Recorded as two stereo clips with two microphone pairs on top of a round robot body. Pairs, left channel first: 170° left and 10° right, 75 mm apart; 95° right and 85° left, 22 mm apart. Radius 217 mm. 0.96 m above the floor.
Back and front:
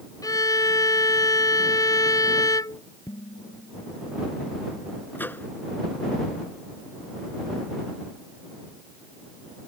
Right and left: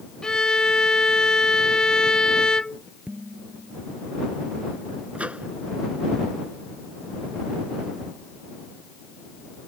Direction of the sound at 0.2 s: 150° right.